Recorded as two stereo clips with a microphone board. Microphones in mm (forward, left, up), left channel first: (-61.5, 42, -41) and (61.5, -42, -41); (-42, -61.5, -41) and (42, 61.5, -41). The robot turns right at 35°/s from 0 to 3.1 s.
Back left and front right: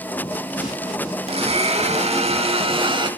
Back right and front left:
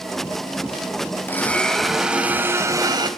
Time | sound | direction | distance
1.3 | a blender | 55° right | 0.8 m